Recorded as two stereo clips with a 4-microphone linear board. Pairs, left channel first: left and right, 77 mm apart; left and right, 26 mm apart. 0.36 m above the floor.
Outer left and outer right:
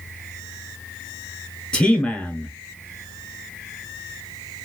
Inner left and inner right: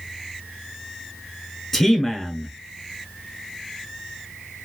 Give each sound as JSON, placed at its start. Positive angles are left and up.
{"t": 1.7, "sound": "a man speaking", "side_deg": 10, "distance_m": 1.4}